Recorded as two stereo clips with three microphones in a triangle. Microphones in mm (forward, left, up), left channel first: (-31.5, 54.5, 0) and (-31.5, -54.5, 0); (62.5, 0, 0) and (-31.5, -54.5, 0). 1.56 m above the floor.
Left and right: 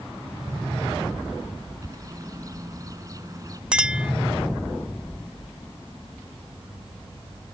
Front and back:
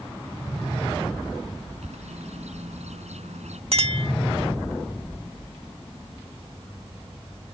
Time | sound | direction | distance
1.8 | a bird | 145° right | ?
3.7 | a clink | 170° right | ?